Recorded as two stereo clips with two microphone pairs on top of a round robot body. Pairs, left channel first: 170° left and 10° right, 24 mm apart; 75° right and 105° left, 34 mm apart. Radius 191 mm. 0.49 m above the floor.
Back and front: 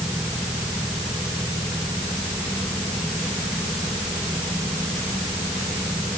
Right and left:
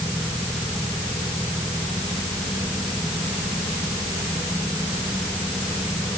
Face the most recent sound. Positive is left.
No sound to turn to.